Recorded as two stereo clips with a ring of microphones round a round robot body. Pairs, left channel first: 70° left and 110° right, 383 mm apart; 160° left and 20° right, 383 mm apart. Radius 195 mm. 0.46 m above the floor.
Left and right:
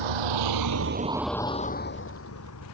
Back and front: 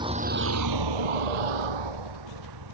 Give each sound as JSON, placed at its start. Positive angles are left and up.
{"t": 0.0, "sound": "a vehicle", "azimuth_deg": -100}